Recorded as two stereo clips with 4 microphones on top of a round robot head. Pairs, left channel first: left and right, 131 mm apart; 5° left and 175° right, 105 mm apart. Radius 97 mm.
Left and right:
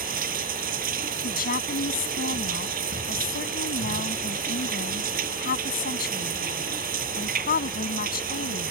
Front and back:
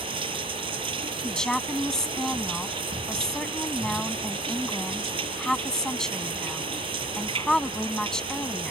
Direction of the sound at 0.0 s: 120° right.